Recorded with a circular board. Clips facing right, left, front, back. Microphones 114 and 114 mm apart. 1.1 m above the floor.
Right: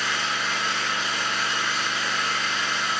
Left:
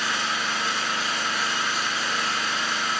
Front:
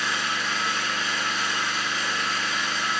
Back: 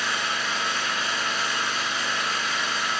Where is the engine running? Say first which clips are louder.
Even, even; 165° left, 1.1 m.